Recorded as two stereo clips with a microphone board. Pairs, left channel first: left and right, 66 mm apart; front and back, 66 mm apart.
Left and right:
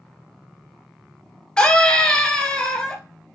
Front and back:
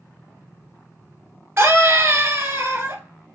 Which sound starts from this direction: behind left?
A scream, at 1.6 s.